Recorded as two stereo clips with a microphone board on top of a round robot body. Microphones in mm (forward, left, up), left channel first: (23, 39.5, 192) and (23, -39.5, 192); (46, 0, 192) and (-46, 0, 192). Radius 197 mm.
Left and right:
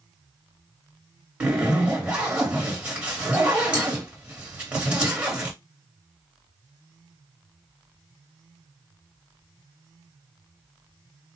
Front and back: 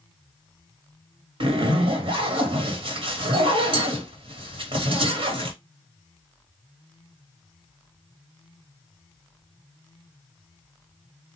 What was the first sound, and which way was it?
A zipper, 165° right.